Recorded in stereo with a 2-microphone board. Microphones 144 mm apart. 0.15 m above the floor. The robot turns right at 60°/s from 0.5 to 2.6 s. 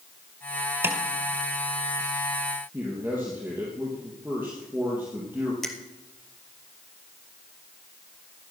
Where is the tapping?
15° right (ahead or behind), 1.7 m; by 1.0 s 10° right (ahead or behind), 1.7 m.